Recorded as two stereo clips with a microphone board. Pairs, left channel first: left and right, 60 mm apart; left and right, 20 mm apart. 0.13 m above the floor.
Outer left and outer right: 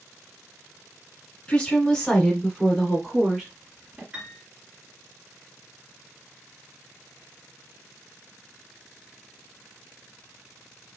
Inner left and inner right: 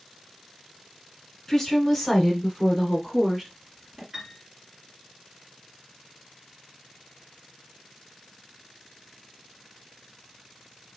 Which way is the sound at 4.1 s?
15° right (ahead or behind).